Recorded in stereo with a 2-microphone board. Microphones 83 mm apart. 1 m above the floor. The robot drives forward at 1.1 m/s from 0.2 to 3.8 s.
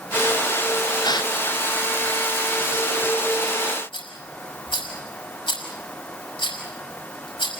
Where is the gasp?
50° left (ahead or behind), 0.9 m; by 1.3 s 55° left (ahead or behind), 0.9 m.